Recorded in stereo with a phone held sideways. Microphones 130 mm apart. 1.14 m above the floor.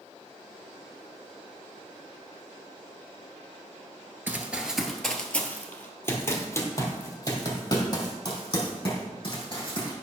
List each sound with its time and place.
4.3 s running footsteps: 15° right (ahead or behind), 1.4 m; by 9.9 s 40° left (ahead or behind), 4.5 m